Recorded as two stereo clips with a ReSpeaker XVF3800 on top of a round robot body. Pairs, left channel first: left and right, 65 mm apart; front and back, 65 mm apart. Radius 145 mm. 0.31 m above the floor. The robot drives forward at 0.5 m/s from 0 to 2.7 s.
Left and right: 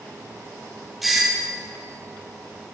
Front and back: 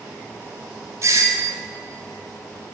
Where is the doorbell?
Straight behind, 1.7 m.